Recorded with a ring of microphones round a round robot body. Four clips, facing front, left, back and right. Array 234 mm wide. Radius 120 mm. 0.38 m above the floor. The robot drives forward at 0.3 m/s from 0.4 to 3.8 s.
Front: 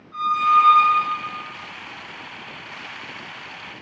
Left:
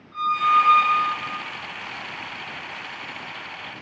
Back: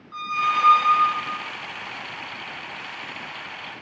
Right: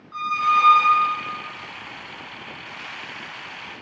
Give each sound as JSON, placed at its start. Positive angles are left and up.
{"t": 0.1, "sound": "a squeak", "azimuth_deg": -135, "distance_m": 1.9}